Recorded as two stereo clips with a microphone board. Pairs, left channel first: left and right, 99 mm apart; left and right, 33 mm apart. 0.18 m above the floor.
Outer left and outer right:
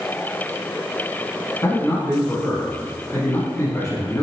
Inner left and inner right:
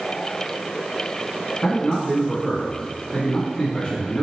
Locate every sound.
1.6 s a man speaking: 25° left (ahead or behind), 1.4 m